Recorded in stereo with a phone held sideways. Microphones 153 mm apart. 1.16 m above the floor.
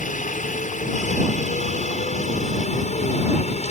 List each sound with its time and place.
0.0 s a helicopter: 55° left (ahead or behind); by 3.7 s 50° left (ahead or behind)